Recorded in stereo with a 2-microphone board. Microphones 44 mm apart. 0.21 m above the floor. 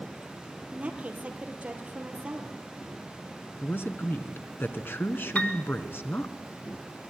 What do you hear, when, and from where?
0.7 s a woman speaking: 30° right (ahead or behind), 4 m
3.6 s a man speaking: 60° left (ahead or behind), 2 m
5.3 s a piano: 35° left (ahead or behind), 1.8 m